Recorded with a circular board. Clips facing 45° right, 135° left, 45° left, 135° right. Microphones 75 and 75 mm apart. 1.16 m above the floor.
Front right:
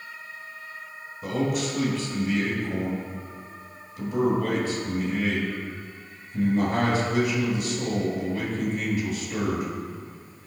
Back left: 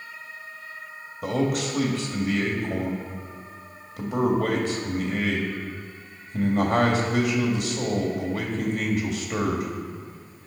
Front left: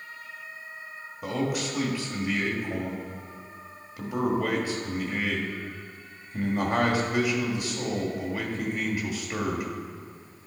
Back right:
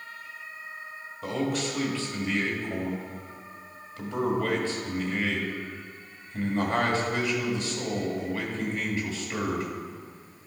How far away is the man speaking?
About 1.9 m.